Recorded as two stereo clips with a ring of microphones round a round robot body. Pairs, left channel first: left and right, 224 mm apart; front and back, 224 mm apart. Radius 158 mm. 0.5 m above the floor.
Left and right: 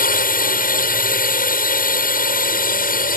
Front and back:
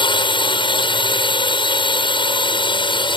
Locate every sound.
0.0 s a drone: 60° left